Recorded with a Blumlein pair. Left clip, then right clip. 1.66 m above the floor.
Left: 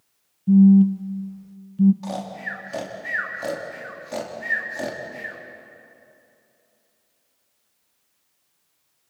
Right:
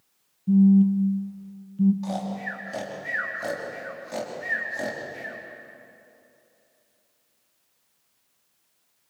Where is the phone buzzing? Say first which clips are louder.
Left 4 dB; 15° left, 0.7 m.